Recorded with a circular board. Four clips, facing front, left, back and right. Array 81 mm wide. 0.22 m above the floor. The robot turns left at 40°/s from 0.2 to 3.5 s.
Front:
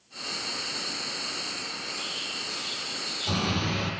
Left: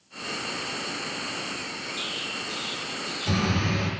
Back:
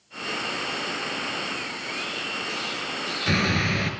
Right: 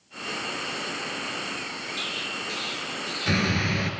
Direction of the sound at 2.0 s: 95° right.